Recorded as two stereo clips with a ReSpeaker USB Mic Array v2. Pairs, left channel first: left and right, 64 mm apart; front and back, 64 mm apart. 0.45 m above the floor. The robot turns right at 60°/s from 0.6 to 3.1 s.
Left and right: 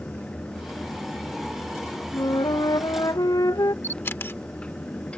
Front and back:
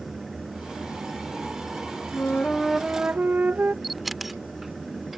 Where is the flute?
55° left; by 3.7 s 115° left.